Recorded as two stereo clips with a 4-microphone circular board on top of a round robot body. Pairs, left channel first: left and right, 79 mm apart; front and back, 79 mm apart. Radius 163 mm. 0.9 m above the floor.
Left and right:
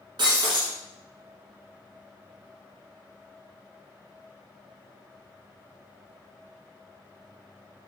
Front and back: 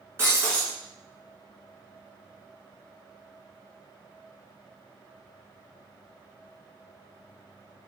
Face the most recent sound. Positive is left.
turn(degrees=-120)